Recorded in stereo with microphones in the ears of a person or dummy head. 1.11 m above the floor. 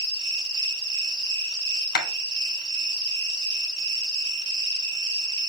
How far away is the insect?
About 0.9 m.